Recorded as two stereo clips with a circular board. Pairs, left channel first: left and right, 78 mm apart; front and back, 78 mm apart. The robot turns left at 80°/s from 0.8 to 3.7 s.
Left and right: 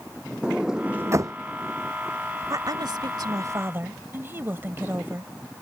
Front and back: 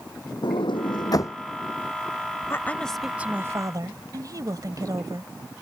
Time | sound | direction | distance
0.4 | a sliding door | 10° right | ?
2.5 | a woman speaking | 50° right | ?